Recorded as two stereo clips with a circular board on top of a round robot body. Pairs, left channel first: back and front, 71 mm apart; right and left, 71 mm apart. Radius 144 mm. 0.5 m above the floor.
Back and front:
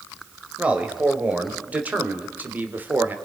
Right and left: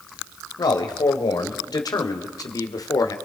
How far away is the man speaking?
About 3.5 m.